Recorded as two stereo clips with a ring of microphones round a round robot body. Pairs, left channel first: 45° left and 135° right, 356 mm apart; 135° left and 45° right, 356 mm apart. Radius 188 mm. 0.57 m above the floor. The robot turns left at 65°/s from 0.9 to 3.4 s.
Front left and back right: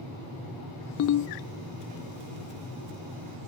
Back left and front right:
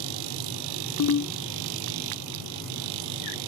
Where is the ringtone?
95° left; by 1.3 s 75° left.